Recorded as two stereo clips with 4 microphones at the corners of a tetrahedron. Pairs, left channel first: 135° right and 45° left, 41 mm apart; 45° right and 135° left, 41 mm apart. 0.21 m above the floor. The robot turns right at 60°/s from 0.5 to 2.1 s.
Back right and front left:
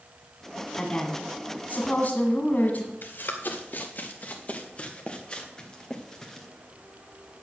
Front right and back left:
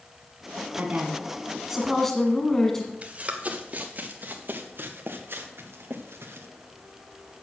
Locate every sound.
0.8 s a woman speaking: 160° left, 1.6 m; by 2.9 s 120° right, 1.6 m
3.0 s running footsteps: 165° right, 3 m; by 6.5 s 145° left, 2.5 m